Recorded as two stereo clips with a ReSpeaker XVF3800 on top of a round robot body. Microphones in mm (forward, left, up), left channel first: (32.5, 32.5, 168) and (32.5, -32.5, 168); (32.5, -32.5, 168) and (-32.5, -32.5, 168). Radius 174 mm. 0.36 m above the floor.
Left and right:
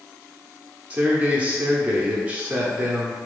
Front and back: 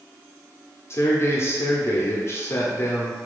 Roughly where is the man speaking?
Ahead right.